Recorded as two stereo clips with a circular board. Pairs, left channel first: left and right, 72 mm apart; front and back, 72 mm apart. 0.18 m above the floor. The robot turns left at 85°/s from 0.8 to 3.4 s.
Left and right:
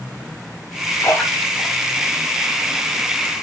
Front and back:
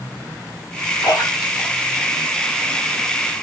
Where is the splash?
40° left, 5.5 m; by 2.9 s 120° right, 5.5 m.